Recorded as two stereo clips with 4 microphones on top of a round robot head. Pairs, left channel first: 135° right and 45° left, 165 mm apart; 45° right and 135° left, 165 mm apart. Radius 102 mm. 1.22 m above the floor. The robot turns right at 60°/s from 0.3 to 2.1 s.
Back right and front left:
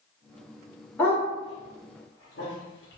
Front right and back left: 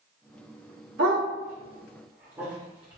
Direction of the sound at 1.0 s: 145° left.